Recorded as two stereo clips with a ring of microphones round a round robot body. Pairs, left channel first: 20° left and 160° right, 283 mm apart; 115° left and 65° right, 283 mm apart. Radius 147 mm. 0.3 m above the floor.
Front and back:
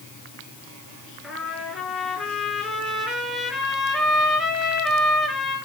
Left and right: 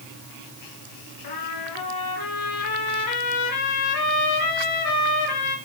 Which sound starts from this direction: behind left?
A trumpet, at 1.2 s.